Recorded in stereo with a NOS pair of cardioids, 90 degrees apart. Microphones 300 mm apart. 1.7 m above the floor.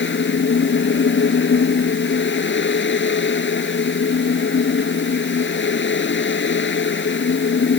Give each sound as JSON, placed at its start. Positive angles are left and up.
{"t": 0.0, "sound": "a fan", "azimuth_deg": 40}